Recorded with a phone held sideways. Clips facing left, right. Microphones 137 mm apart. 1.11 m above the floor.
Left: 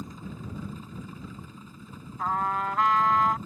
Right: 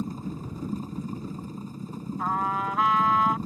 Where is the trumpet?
Centre (ahead or behind).